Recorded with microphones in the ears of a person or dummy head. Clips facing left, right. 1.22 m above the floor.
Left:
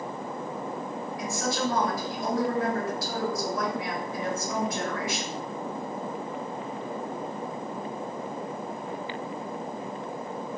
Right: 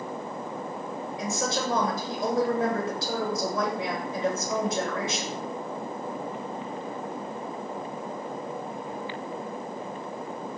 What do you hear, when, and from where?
1.2 s a woman speaking: 20° right (ahead or behind), 1.0 m